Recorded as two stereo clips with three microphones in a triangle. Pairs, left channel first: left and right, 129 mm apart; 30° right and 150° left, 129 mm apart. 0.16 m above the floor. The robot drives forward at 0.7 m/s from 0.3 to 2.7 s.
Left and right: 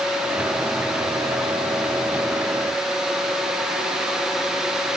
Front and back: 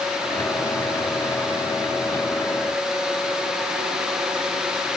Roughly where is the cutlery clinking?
I don't hear cutlery clinking.